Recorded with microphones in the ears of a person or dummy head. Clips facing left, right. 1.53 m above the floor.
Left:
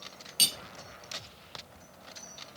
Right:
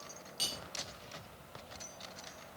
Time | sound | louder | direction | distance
0.4 | cutlery clinking | left 4 dB | 40° left (ahead or behind) | 0.8 m